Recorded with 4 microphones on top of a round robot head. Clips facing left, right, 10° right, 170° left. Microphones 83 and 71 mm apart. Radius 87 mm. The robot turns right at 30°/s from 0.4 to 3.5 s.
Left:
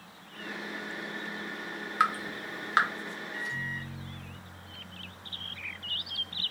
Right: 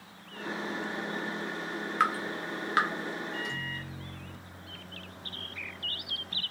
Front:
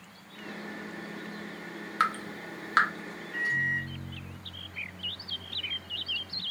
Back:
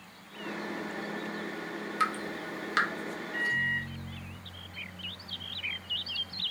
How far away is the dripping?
About 1.3 m.